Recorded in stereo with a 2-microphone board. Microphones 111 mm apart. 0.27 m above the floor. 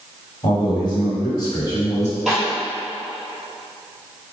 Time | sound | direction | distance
0.4 | a man speaking | 50° left (ahead or behind) | 1.4 m
2.3 | a snare drum | centre (ahead or behind) | 1.7 m